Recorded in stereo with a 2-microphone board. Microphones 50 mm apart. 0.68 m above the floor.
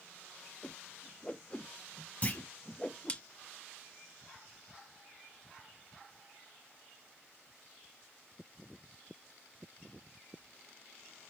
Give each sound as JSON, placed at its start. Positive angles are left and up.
{"t": 0.6, "sound": "a whoosh", "side_deg": 25, "distance_m": 0.5}
{"t": 2.2, "sound": "a clunk", "side_deg": 30, "distance_m": 1.4}